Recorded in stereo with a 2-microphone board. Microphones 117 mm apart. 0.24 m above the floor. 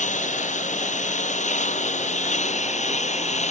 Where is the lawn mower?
75° left (ahead or behind); by 3.5 s 65° left (ahead or behind).